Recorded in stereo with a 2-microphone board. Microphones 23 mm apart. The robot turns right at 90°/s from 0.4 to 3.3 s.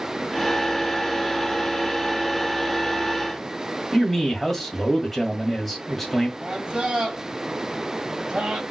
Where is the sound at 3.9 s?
5° left (ahead or behind), 1.6 m.